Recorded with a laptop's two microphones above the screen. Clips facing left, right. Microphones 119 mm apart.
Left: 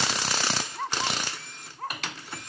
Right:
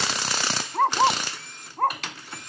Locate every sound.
0.7 s a dog barking: 65° right (ahead or behind)